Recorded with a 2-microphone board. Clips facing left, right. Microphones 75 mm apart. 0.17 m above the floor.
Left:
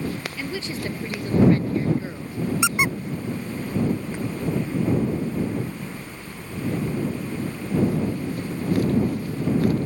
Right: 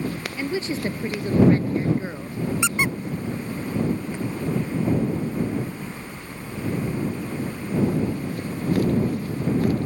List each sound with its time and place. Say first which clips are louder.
0.4 s a woman speaking: right 4 dB; 20° right (ahead or behind); by 2.4 s 30° right (ahead or behind)
2.6 s a squeak: left 1 dB; 15° left (ahead or behind)